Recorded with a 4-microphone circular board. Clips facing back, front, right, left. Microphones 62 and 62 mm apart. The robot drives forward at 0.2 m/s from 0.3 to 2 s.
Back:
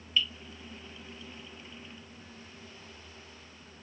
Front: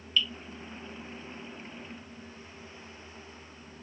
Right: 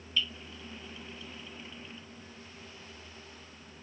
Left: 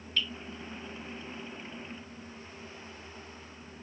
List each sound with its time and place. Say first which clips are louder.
0.2 s dripping: front 1 dB, even; 115° left, 1.1 m